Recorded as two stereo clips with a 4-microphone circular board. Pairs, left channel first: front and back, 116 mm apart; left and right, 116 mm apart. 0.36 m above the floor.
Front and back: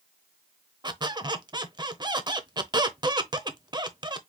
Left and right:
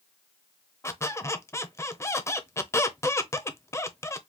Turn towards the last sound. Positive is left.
turn(degrees=145)